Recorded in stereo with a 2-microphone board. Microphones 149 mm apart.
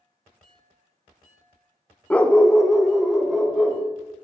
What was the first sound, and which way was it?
A dog barking, 10° left (ahead or behind).